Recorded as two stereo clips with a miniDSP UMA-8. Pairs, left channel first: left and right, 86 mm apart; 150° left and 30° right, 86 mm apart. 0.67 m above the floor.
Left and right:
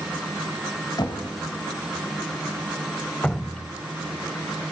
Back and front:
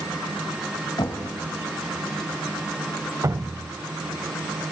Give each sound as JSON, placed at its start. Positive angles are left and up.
{"t": 1.0, "sound": "knocking", "azimuth_deg": 120, "distance_m": 2.5}
{"t": 3.2, "sound": "dripping", "azimuth_deg": 15, "distance_m": 0.7}